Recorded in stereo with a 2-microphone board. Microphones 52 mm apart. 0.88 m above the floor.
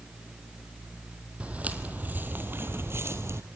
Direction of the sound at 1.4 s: 25° right (ahead or behind).